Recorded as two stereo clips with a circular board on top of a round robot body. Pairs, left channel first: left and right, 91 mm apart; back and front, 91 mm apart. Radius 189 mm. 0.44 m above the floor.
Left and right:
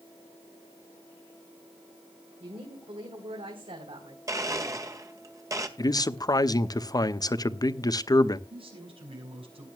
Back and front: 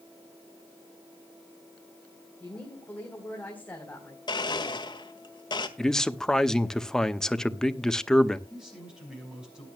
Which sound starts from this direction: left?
A man speaking, at 5.8 s.